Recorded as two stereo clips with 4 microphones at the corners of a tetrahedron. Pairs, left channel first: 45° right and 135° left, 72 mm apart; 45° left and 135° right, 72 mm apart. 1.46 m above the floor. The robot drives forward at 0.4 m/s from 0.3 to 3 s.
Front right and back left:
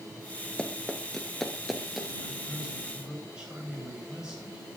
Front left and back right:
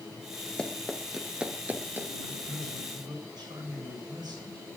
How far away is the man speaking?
About 9 m.